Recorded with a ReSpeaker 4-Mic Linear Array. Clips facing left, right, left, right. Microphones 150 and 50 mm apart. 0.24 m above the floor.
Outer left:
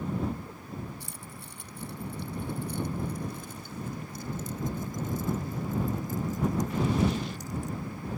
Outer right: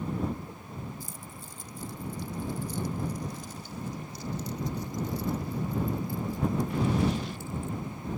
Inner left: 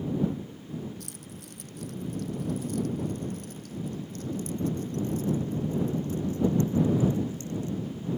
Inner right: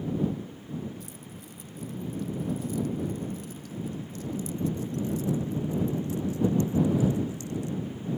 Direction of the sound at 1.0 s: 70° left (ahead or behind).